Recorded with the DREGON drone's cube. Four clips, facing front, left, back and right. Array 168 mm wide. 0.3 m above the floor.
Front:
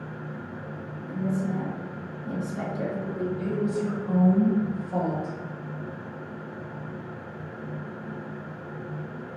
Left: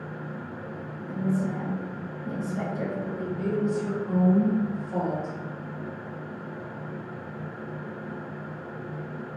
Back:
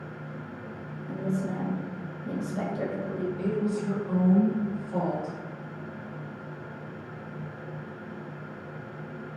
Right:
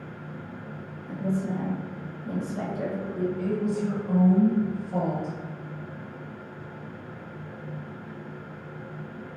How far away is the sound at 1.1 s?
About 0.9 m.